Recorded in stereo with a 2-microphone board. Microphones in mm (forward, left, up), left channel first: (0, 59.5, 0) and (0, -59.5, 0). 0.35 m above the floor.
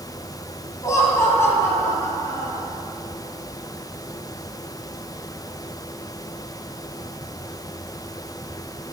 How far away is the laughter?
About 2.0 m.